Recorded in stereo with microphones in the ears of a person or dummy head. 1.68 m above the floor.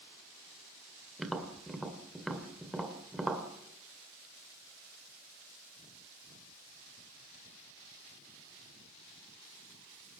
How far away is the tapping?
About 1.9 m.